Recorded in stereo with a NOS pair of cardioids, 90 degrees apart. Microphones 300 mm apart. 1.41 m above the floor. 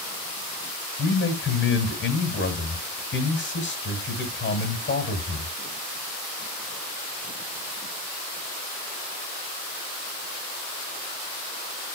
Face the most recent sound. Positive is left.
turn(degrees=40)